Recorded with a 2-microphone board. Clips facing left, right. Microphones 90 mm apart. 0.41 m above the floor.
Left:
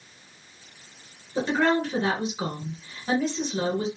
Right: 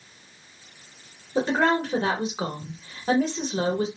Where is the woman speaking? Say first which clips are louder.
Right 1 dB; 45° right (ahead or behind), 1.1 m.